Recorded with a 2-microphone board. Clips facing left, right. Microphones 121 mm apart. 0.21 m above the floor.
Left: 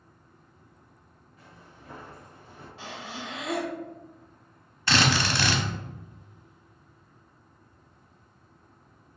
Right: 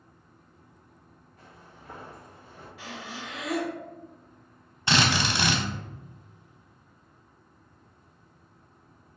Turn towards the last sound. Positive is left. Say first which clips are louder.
# even
turn(degrees=-20)  # may be behind; listen again after turning